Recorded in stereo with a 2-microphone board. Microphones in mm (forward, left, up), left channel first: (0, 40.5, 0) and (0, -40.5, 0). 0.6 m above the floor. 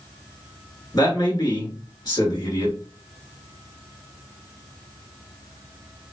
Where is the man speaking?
55° left (ahead or behind), 1.9 m.